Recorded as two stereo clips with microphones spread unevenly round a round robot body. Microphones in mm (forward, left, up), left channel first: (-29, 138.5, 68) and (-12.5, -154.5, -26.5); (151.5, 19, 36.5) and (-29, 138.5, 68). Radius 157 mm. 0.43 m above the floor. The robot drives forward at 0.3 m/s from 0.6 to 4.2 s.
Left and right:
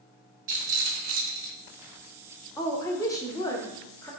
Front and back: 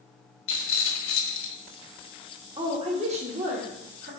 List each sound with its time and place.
0.5 s a rattle: 35° right, 1.8 m; by 1.6 s 40° right, 1.6 m
2.6 s a woman speaking: 160° right, 1.0 m; by 4.1 s 170° right, 1.3 m